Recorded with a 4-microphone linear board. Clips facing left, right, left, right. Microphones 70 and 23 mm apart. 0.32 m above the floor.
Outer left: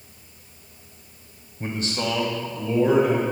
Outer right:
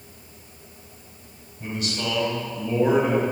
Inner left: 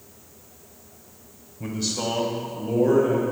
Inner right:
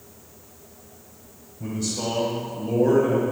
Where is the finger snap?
No finger snap in this recording.